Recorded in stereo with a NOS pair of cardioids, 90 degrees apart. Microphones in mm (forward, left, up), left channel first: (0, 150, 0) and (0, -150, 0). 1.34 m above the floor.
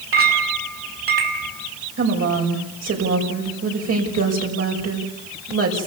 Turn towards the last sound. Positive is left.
turn(degrees=-55)